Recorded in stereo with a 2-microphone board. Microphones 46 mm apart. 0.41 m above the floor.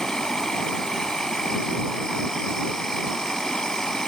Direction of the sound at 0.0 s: 10° left (ahead or behind).